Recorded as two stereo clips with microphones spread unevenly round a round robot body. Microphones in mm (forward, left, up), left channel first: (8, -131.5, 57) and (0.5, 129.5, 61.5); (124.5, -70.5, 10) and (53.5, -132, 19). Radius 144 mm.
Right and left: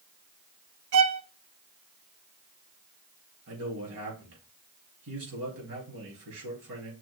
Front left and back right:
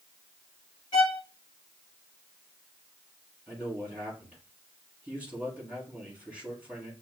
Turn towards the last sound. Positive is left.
turn(degrees=125)